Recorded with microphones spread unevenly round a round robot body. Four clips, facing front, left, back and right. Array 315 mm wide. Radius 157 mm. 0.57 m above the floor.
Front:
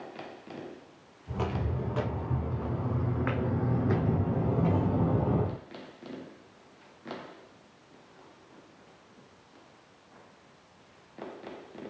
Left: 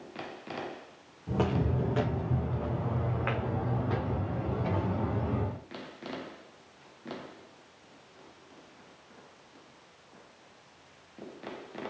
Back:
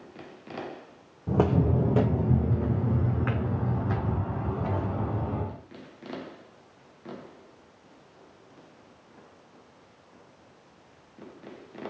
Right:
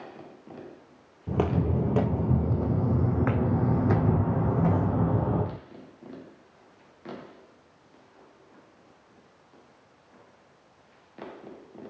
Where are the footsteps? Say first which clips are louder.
Right 3 dB, back 10 dB; 150° right, 1.9 m; by 5.6 s 45° right, 2 m.